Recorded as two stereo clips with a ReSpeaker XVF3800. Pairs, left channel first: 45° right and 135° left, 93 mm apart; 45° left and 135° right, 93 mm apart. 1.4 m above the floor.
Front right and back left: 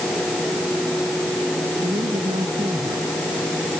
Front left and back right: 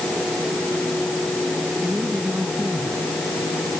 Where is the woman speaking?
145° left; by 3.7 s 135° left.